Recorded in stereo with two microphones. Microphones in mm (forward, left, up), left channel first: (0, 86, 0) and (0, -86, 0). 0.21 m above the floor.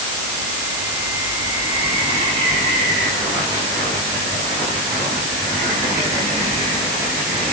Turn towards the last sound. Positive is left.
No sound to turn to.